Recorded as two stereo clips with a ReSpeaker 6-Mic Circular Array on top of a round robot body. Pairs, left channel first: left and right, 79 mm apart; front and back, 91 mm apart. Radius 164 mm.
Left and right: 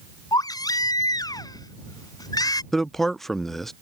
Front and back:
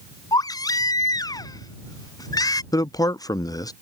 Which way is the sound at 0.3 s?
50° left.